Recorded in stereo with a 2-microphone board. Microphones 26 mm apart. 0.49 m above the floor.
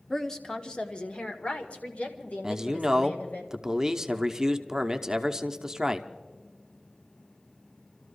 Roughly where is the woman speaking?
Centre.